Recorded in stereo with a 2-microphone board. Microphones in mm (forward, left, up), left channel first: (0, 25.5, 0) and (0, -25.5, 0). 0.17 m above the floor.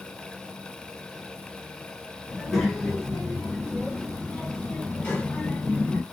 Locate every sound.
2.3 s a child speaking: centre (ahead or behind), 2 m; by 6.0 s 25° left (ahead or behind), 1.3 m